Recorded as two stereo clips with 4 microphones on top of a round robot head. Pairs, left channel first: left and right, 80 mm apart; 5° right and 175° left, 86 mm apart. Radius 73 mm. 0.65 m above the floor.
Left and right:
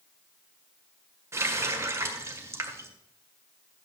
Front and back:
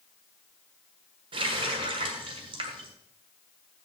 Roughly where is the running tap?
Behind right.